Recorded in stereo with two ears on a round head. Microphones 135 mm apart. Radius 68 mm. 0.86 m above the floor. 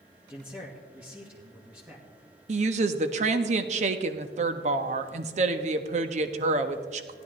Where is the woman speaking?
45° right (ahead or behind), 0.9 m.